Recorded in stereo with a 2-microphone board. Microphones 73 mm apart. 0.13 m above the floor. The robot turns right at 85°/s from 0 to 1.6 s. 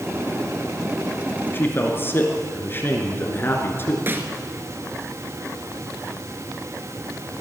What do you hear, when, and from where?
1.5 s a man speaking: 25° left (ahead or behind), 2 m; by 4.0 s 30° left (ahead or behind), 2 m
4.1 s a snare drum: 30° right (ahead or behind), 1.3 m